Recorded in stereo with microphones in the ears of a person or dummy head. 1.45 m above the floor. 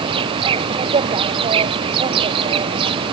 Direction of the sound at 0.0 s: 30° right (ahead or behind).